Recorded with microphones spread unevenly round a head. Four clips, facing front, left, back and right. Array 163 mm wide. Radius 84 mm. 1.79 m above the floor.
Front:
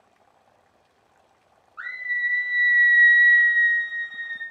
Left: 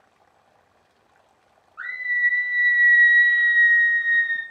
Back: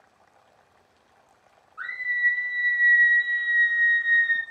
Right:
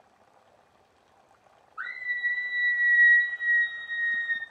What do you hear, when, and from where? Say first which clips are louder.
1.8 s a scream: left 7 dB, back 1 dB; 10° left, 1.3 m; by 4.4 s 140° left, 0.8 m